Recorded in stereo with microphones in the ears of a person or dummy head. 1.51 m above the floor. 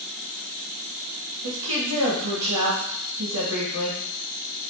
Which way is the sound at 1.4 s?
75° right (ahead or behind).